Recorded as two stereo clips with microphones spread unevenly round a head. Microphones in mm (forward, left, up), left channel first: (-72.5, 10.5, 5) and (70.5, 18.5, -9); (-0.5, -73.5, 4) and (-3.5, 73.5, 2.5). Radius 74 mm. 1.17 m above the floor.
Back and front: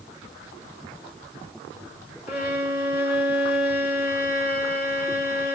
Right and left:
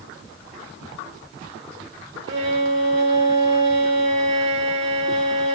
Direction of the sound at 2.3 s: 140° left.